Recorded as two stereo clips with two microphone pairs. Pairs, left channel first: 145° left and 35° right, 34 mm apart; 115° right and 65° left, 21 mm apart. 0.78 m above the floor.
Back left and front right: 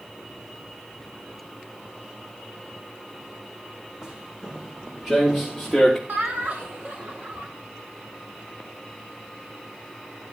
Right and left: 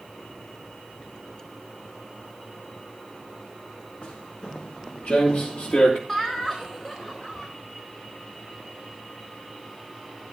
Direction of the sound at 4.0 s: 105° right.